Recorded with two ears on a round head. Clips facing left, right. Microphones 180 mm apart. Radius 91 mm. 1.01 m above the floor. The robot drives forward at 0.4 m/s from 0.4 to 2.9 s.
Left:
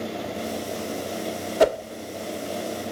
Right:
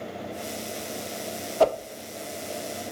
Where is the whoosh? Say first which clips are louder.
Left 2 dB; 20° left (ahead or behind), 0.6 m; by 1.8 s 15° left (ahead or behind), 0.6 m.